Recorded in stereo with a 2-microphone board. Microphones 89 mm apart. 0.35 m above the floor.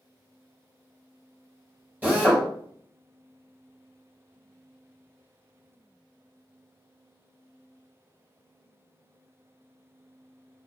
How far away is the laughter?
I don't hear laughter.